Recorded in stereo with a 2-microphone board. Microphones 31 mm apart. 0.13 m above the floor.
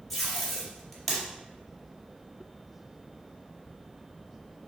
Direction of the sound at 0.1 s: 5° left (ahead or behind).